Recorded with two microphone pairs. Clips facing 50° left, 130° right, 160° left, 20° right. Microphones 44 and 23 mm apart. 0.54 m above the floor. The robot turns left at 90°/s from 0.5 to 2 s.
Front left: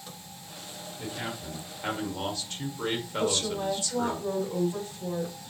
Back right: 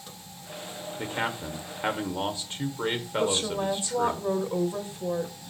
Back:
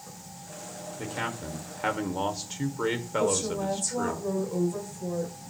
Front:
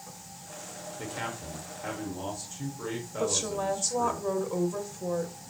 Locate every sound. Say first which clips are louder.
1.0 s a man speaking: back right 6 dB, back 3 dB; 105° right, 1.7 m; by 4.2 s 165° left, 1.7 m
3.2 s a woman speaking: back right 2 dB, back 1 dB; 70° right, 2 m